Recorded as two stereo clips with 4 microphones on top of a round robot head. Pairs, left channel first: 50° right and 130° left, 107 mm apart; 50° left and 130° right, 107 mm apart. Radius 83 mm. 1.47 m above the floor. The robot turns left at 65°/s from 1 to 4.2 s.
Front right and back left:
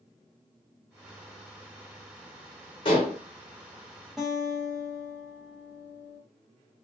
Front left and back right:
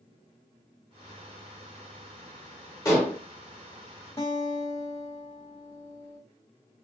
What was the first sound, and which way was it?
Dishes clattering, 5° right.